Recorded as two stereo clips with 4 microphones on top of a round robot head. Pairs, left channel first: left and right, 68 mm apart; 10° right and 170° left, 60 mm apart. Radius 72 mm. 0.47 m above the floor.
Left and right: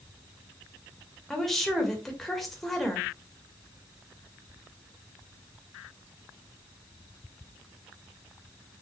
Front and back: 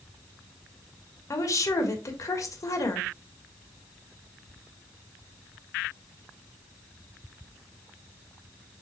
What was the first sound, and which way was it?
A woman speaking, straight ahead.